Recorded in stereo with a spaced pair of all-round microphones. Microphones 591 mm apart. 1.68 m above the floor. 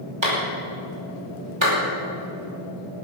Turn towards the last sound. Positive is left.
turn(degrees=-50)  # may be behind; listen again after turning